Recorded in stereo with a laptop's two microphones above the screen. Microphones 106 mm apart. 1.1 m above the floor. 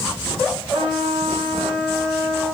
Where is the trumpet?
85° right, 3 m.